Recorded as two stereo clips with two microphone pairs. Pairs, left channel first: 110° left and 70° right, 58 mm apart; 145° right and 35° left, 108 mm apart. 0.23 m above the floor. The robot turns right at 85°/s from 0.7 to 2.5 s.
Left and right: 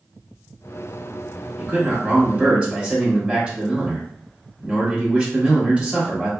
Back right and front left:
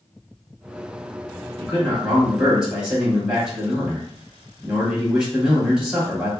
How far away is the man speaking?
About 1.6 m.